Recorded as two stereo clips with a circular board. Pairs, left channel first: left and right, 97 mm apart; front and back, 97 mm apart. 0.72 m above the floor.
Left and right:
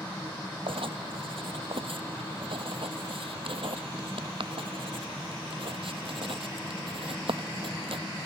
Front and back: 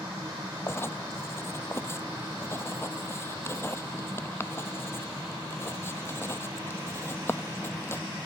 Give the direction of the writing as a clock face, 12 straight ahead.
2 o'clock.